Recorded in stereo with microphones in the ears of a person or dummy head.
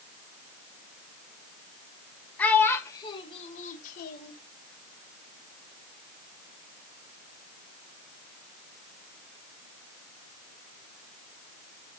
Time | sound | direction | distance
2.4 | a child speaking | 5° left (ahead or behind) | 1.3 m